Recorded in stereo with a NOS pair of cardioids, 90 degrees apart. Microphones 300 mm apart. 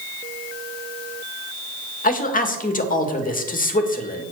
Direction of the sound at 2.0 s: 30° left.